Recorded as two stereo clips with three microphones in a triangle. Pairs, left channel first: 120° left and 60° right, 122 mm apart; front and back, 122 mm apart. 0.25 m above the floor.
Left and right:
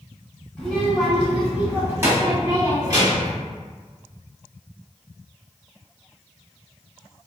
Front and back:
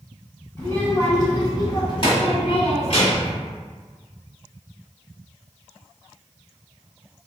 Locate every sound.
0.6 s a child speaking: 45° left, 1.1 m; by 3.3 s 15° right, 1.9 m